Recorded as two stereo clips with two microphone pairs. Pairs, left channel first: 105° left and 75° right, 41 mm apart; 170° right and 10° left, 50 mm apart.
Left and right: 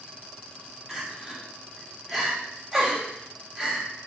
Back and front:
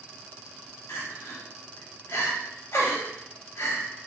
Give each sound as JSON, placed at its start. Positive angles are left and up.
{"t": 0.9, "sound": "crying", "azimuth_deg": -155, "distance_m": 1.2}